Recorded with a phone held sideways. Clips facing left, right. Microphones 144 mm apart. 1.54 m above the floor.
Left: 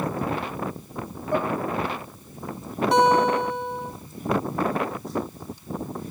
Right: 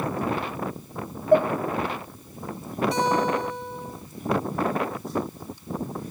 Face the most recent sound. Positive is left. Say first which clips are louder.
# left 6 dB
turn(degrees=75)  # may be behind; listen again after turning